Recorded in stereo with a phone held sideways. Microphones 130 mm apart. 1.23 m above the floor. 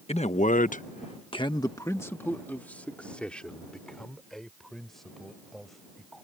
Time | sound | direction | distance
0.1 | a man speaking | 50° left (ahead or behind) | ?